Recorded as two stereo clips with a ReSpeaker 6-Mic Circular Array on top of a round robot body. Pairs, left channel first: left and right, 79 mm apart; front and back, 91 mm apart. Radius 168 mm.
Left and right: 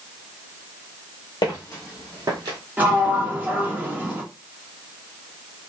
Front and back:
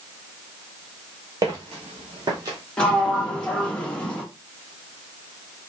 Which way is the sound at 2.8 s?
60° right.